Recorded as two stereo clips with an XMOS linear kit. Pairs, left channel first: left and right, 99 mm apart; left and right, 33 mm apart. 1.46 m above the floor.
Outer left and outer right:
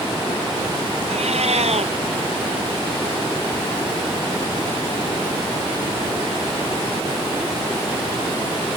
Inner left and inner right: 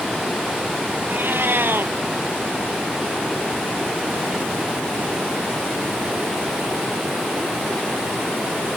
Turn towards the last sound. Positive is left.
turn(degrees=-85)